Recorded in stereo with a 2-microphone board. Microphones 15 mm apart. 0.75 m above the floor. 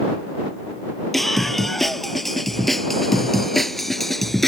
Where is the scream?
10° left (ahead or behind).